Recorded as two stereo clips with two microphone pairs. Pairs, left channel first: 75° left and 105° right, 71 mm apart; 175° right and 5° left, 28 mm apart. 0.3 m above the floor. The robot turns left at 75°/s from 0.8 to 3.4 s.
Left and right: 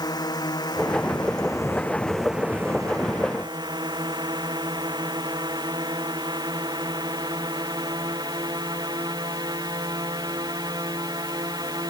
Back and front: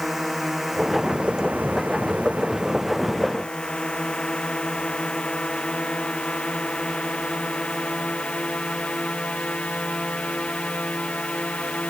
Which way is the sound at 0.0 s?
95° left.